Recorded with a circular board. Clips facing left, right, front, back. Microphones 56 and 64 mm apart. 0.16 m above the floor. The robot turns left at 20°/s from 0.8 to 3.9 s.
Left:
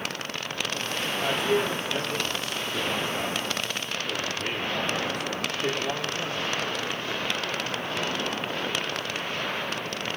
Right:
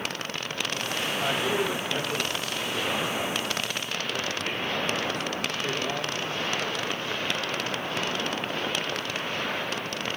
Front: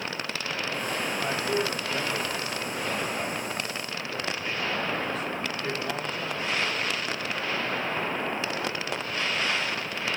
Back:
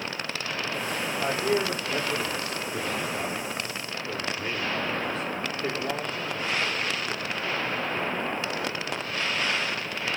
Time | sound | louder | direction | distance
1.2 | a man speaking | left 3 dB, back 4 dB | straight behind | 6 m